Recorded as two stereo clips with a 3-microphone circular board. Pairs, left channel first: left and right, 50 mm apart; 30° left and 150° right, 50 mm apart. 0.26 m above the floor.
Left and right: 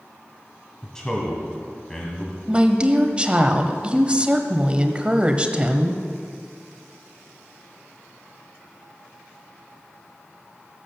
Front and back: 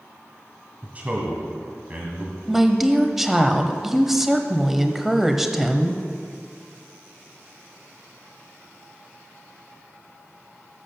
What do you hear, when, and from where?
0.8 s a man speaking: 160° left, 2 m
2.5 s a woman speaking: 70° right, 0.9 m